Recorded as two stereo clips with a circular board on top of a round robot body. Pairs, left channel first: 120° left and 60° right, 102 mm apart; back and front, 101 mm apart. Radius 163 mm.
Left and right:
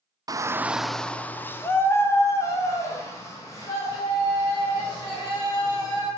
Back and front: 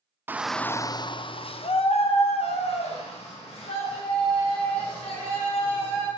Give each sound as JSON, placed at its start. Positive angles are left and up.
{"t": 0.3, "sound": "a shout", "azimuth_deg": -55, "distance_m": 0.9}